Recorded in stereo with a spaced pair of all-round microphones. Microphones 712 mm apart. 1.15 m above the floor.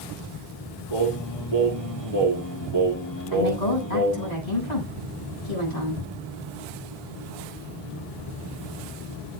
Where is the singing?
35° left (ahead or behind), 7 m.